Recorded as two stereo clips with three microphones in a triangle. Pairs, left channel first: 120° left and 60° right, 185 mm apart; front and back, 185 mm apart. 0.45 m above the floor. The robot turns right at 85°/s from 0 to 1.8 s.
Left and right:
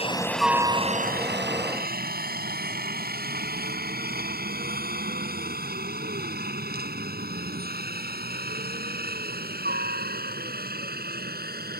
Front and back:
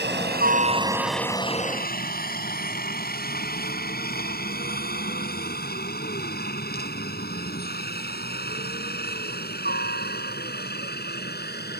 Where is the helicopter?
175° left; by 11.8 s 30° right.